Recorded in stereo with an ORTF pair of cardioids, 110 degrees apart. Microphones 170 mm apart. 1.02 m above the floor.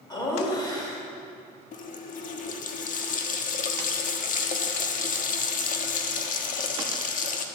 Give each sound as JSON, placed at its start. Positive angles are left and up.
{"t": 0.1, "sound": "laughter", "azimuth_deg": 25, "distance_m": 5.0}
{"t": 1.7, "sound": "a running tap", "azimuth_deg": 50, "distance_m": 1.4}